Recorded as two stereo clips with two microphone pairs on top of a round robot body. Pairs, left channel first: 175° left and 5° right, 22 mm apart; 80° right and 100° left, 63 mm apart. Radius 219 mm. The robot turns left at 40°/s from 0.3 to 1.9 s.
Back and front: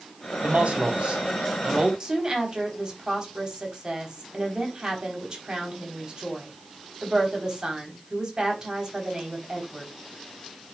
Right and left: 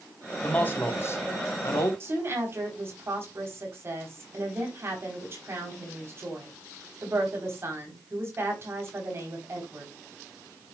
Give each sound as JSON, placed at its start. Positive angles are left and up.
{"t": 0.4, "sound": "a man speaking", "azimuth_deg": -15, "distance_m": 3.0}
{"t": 2.0, "sound": "a woman speaking", "azimuth_deg": 50, "distance_m": 4.0}